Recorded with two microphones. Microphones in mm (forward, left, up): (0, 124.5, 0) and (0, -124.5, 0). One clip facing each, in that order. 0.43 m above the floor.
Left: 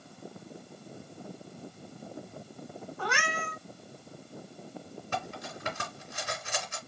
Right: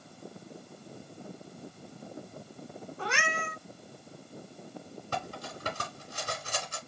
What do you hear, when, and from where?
3.0 s a cat meowing: 25° right (ahead or behind), 2 m
5.1 s cutlery clinking: 40° right (ahead or behind), 2.5 m